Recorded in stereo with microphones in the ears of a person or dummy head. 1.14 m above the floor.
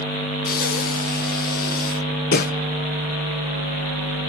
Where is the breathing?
40° left (ahead or behind), 0.7 m.